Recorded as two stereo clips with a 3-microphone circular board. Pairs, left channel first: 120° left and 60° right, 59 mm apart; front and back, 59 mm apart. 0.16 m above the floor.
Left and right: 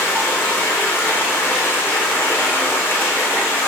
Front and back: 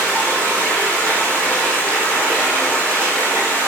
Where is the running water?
60° left, 4.5 m.